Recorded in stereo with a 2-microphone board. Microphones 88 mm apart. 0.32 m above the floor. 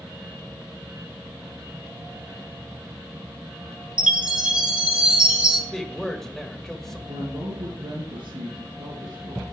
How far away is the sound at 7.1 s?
About 5 m.